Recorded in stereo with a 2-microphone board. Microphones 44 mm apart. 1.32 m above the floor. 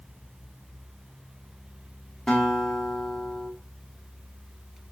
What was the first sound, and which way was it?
A guitar, 10° left (ahead or behind).